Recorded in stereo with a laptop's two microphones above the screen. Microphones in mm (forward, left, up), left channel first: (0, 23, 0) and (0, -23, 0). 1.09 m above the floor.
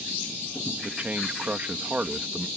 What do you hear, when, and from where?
0.8 s a man speaking: 35° right (ahead or behind)